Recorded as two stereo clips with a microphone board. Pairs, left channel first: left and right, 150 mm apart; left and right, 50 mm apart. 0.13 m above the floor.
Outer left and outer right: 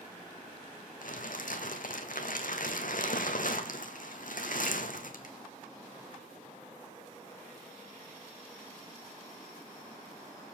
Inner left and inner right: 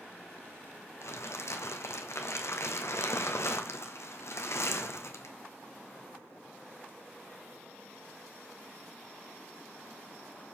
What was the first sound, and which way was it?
Crumpling, 65° left (ahead or behind).